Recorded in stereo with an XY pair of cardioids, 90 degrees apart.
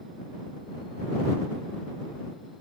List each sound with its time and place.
Only background noise.